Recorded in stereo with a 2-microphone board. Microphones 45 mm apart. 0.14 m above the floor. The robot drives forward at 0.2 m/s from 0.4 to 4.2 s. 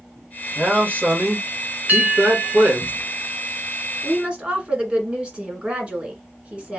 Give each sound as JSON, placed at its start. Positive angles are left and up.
{"t": 0.6, "sound": "a man speaking", "side_deg": -50, "distance_m": 2.0}
{"t": 1.9, "sound": "a bell", "side_deg": -45, "distance_m": 1.1}
{"t": 4.0, "sound": "a woman speaking", "side_deg": -30, "distance_m": 1.6}